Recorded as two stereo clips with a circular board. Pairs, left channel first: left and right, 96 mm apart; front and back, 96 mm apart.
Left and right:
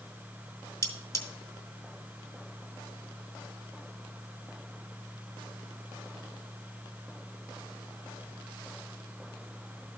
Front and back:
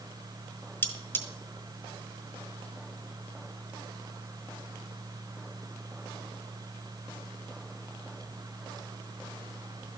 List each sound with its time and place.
0.8 s cutlery clinking: 50° left, 1.0 m